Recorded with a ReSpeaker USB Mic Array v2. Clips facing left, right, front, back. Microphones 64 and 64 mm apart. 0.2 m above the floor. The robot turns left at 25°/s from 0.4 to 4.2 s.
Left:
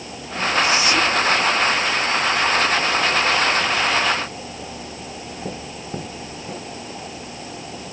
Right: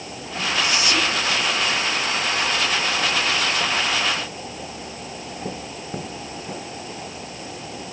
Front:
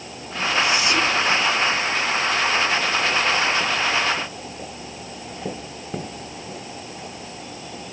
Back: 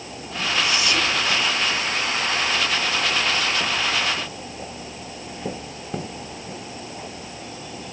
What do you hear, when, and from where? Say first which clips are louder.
0.6 s whispering: left 3 dB, front 2 dB; 50° left, 2 m; by 1.2 s 35° left, 2 m